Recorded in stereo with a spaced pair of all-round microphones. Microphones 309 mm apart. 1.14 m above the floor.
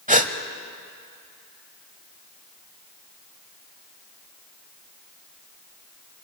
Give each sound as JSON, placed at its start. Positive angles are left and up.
{"t": 0.1, "sound": "a gasp", "side_deg": -25, "distance_m": 1.0}